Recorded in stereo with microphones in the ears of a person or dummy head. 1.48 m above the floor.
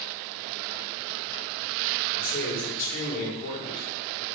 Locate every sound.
2.1 s a man speaking: 45° left (ahead or behind), 3.5 m